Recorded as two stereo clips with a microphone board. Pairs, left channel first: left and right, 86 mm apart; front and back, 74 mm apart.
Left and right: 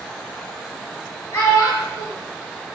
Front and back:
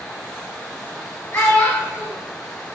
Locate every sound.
1.3 s a child speaking: 45° left, 1.6 m